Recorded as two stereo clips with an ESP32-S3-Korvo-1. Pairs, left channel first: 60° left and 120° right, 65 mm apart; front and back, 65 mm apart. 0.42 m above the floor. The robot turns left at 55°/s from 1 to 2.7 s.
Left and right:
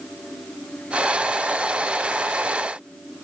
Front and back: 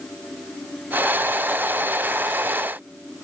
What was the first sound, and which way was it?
Only background noise.